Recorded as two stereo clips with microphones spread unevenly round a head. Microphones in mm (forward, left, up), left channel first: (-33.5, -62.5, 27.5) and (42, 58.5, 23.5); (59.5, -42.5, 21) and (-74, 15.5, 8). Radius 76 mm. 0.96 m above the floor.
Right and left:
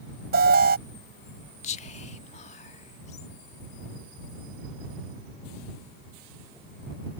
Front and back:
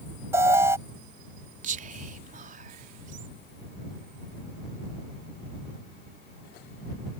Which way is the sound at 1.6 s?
170° right.